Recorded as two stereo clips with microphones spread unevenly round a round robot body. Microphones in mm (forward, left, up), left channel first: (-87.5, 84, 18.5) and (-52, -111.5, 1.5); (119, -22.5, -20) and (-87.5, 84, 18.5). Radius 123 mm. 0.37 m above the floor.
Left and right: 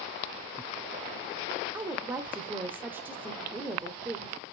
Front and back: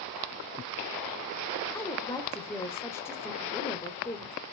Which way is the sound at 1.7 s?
35° right.